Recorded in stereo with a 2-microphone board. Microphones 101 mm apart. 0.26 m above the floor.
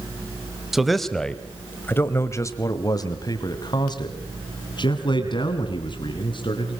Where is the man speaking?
5° right (ahead or behind), 1.6 m; by 6.8 s 50° left (ahead or behind), 4 m.